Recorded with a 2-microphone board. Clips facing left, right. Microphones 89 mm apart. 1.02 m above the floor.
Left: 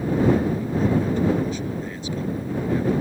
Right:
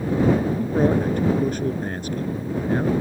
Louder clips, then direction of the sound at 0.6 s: Right 2 dB; 55° right (ahead or behind).